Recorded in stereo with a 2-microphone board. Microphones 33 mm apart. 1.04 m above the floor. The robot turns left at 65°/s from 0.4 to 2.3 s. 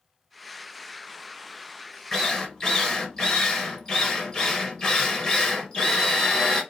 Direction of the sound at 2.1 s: 15° left (ahead or behind).